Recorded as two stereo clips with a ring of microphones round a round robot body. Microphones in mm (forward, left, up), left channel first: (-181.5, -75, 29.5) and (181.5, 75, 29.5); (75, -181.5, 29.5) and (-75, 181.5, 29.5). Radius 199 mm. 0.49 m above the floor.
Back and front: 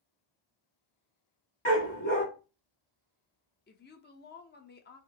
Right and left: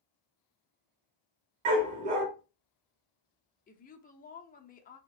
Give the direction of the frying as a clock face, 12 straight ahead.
No frying in this recording.